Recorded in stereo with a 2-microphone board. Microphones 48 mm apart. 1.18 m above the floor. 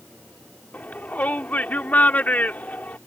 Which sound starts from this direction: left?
A shout, at 0.7 s.